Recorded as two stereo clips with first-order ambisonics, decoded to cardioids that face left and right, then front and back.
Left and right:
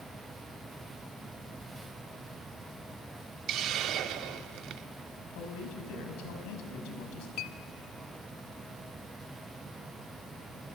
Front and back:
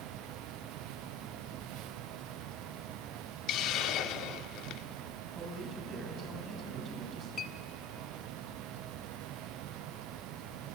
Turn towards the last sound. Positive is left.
turn(degrees=55)